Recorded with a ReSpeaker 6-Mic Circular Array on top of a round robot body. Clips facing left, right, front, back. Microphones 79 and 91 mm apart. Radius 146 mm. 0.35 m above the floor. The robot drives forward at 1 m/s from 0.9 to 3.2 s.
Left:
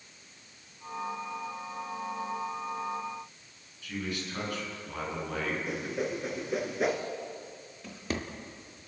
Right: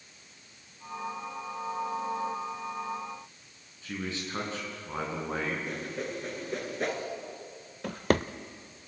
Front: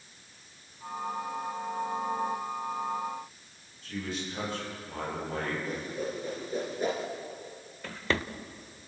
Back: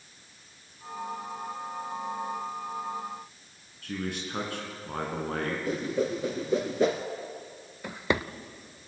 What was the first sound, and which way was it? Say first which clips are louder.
A man speaking: even, back 2 dB; 150° right.